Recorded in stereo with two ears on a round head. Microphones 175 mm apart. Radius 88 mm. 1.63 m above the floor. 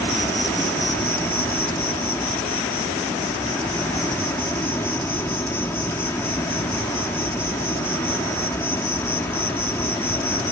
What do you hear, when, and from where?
0.0 s an insect: 10° left (ahead or behind)